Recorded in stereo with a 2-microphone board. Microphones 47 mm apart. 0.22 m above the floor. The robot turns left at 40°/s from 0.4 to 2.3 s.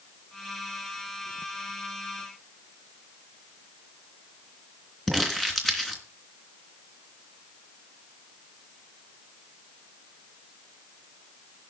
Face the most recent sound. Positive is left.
turn(degrees=5)  # may be behind; listen again after turning